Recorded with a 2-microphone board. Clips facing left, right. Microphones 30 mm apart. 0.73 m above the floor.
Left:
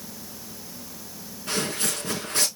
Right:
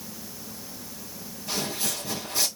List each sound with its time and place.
1.5 s footsteps: 65° left (ahead or behind), 2.5 m